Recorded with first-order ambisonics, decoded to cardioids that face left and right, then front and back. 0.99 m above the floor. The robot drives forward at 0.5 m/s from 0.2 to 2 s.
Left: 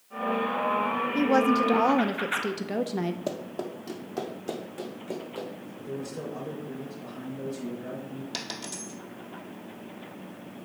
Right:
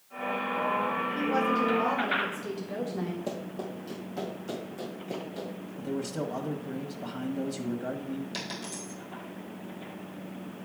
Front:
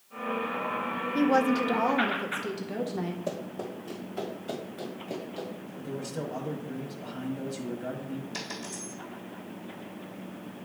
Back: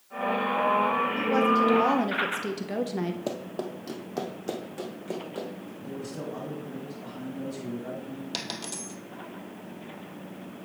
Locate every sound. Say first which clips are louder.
1.1 s a woman speaking: left 6 dB, front 2 dB; 45° left, 0.5 m; by 3.2 s 110° left, 0.5 m
3.3 s running footsteps: left 3 dB, back 2 dB; 145° left, 1.2 m; by 5.7 s 160° left, 3.5 m
5.8 s a man speaking: right 3 dB, front 2 dB; 80° right, 1.3 m
8.3 s a dropped coin: left 1 dB, back 6 dB; 160° left, 1.6 m